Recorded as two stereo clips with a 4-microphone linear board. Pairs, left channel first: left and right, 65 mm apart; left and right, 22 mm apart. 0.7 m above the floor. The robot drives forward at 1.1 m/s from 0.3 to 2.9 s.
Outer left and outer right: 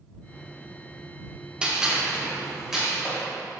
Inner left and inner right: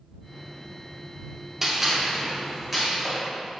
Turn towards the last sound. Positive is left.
turn(degrees=-5)  # may be behind; listen again after turning